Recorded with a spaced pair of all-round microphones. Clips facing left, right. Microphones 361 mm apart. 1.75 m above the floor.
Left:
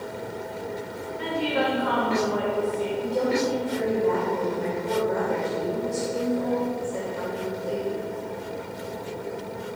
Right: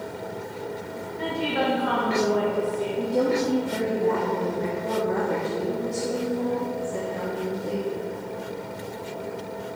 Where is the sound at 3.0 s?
75° right (ahead or behind), 1.5 m.